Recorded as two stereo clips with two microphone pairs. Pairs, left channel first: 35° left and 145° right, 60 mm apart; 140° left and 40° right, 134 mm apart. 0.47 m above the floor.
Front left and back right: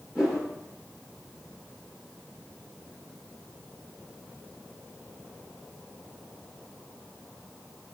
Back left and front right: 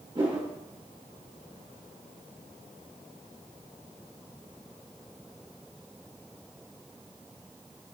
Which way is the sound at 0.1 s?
70° right.